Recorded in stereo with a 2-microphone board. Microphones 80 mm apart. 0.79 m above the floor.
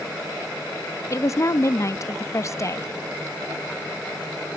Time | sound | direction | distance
1.1 | a woman speaking | 40° left (ahead or behind) | 0.6 m